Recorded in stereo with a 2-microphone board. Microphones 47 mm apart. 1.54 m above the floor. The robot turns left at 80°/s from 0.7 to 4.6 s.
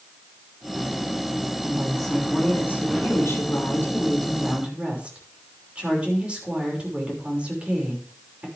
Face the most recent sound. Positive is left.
turn(degrees=-25)